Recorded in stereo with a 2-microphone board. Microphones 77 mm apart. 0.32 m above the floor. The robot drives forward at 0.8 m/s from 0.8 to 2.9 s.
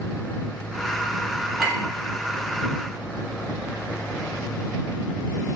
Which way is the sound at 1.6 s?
5° right (ahead or behind).